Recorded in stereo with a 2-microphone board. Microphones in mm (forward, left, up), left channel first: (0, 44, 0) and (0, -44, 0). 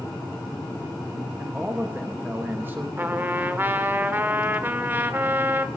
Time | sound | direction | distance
1.4 | a man speaking | 25° right (ahead or behind) | 0.9 m
3.0 | a trumpet | 25° right (ahead or behind) | 0.9 m